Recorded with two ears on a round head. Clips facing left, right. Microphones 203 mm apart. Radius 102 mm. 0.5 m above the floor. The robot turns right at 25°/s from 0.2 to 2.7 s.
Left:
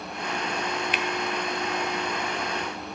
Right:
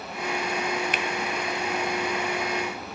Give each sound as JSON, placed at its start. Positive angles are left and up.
{"t": 0.9, "sound": "a finger snap", "side_deg": -40, "distance_m": 0.6}